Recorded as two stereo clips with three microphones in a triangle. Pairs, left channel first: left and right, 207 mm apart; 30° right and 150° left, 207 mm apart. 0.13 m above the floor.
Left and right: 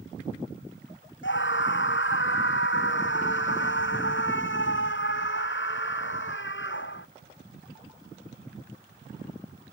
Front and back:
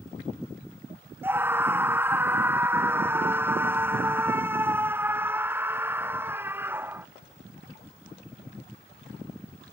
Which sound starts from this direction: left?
A scream, at 1.2 s.